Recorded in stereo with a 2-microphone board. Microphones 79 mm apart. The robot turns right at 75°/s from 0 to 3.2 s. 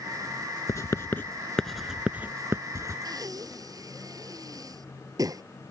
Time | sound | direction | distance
0.7 | writing | 40° left (ahead or behind) | ?
3.0 | breathing | 60° right (ahead or behind) | ?